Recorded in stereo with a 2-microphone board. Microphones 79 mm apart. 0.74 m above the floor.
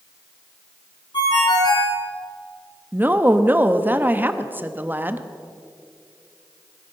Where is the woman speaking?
20° right (ahead or behind), 0.8 m.